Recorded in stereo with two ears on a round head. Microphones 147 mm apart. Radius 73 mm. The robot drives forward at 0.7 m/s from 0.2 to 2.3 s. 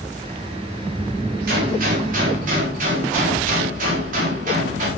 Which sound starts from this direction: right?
A gunshot, at 1.5 s.